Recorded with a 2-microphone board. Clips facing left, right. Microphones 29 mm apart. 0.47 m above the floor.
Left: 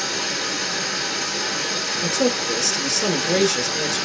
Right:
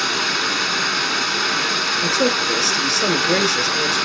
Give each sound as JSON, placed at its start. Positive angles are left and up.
{"t": 0.0, "sound": "running water", "side_deg": -60, "distance_m": 0.9}
{"t": 2.0, "sound": "a man speaking", "side_deg": -25, "distance_m": 1.9}